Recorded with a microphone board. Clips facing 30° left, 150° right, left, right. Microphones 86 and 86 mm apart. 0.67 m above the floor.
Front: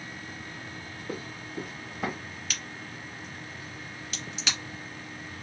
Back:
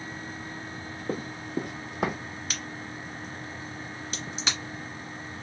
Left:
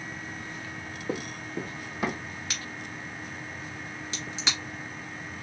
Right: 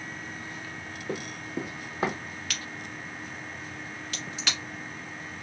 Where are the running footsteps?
165° left, 1.3 m; by 2.2 s 145° right, 1.8 m.